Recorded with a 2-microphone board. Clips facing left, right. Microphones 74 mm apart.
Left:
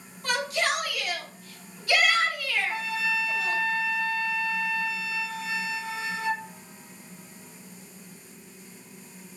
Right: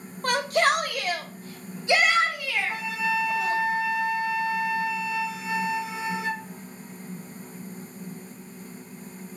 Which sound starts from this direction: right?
A shout, at 0.2 s.